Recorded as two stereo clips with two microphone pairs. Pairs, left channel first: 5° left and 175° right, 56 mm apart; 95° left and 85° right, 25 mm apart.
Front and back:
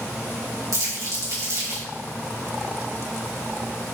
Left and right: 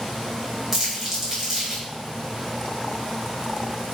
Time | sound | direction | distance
0.7 | crumpling | 165° right | 4 m